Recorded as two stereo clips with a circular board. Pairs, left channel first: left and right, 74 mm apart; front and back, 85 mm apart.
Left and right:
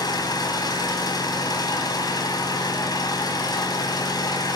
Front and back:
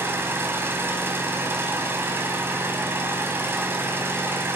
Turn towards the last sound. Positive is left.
turn(degrees=120)